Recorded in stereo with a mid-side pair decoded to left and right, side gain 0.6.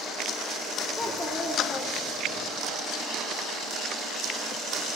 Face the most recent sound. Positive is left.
turn(degrees=55)